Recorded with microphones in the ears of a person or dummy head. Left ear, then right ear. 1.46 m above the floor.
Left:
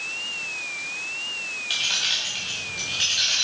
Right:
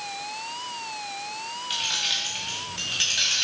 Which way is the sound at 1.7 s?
15° left (ahead or behind).